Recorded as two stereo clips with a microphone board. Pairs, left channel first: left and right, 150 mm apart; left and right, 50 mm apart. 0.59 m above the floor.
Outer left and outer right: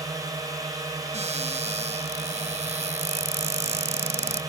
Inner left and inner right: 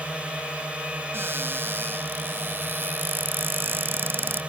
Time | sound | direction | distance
0.0 | a drone | 25° right (ahead or behind) | ?
1.1 | a cupboard door | 50° right (ahead or behind) | ?